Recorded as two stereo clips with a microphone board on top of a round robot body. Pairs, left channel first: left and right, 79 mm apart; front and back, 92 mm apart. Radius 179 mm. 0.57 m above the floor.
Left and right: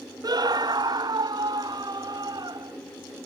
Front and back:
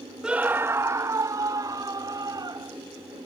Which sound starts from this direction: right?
A scream, at 0.2 s.